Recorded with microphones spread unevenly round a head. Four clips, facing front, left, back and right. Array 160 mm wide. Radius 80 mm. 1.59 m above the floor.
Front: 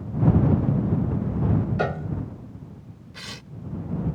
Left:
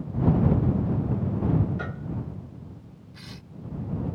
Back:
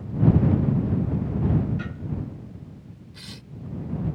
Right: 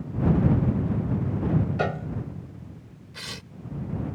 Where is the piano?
45° right.